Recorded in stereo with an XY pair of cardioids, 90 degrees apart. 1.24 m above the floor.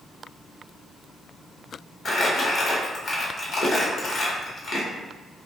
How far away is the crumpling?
About 1.0 m.